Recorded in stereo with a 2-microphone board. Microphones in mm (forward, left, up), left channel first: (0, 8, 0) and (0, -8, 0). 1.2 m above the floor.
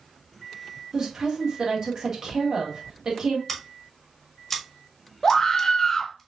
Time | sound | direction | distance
0.9 | a woman speaking | 40° right (ahead or behind) | 1.9 m
3.5 | scissors | 10° left (ahead or behind) | 1.5 m
5.2 | a scream | 25° left (ahead or behind) | 1.0 m